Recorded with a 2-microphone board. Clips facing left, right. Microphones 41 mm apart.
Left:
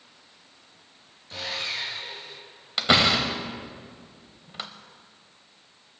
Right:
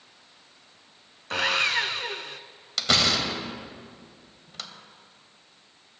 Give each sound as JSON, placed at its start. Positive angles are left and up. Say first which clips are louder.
{"t": 1.3, "sound": "sawing", "louder": "right 8 dB", "side_deg": -85, "distance_m": 0.6}
{"t": 2.8, "sound": "a door slam", "louder": "left 3 dB", "side_deg": 25, "distance_m": 0.9}